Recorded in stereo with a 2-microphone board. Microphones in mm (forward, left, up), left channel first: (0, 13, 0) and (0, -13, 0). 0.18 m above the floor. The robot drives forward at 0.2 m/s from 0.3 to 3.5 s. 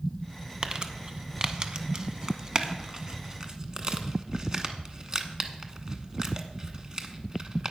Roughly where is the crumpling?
Right.